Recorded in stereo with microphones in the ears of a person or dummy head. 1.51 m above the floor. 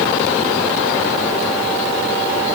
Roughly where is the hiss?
I don't hear a hiss.